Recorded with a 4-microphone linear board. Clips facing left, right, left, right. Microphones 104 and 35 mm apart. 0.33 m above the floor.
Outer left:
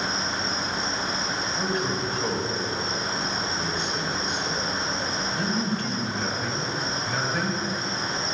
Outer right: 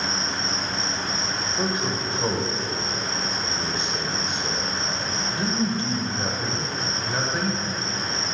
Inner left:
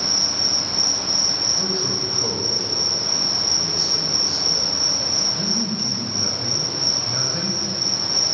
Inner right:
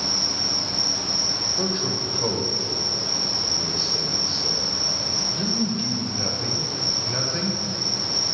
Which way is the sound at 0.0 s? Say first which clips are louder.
Even, inner left 2 dB; 30° right (ahead or behind).